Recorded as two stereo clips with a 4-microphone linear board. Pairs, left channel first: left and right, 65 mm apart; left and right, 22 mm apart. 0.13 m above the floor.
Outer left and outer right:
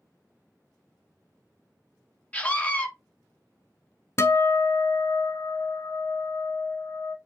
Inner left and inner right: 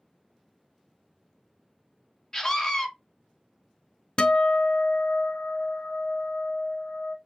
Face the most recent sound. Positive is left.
turn(degrees=40)  # may be behind; listen again after turning